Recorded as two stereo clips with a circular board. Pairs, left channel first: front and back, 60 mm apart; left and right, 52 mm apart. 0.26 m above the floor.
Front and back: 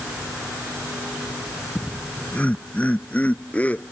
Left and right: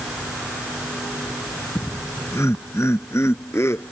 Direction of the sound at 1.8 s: 65° left.